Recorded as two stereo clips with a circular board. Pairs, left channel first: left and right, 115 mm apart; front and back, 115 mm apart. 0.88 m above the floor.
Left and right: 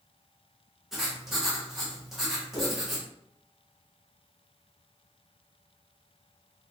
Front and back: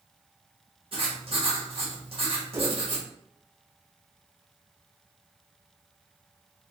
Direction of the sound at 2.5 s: 125° left.